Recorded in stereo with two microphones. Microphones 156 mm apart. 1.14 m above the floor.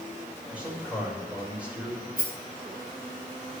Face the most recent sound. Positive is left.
turn(degrees=-65)  # may be behind; listen again after turning